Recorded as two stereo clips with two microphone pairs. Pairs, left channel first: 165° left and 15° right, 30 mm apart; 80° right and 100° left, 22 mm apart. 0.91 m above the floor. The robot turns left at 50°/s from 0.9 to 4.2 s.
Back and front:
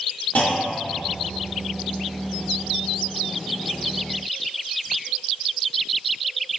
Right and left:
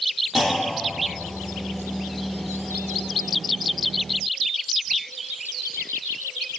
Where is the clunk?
165° left, 0.9 m; by 1.0 s 160° left, 0.9 m.